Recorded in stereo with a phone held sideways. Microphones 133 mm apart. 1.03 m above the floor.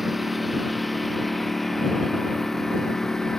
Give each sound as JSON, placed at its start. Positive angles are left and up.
{"t": 0.0, "sound": "a lawn mower", "side_deg": 0}